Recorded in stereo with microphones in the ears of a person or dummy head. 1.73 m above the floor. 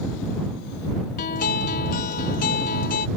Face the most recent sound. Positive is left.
turn(degrees=45)  # may be behind; listen again after turning